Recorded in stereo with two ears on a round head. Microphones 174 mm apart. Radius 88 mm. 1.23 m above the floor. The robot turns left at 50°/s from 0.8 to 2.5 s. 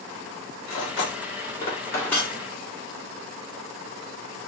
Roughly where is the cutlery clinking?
Left.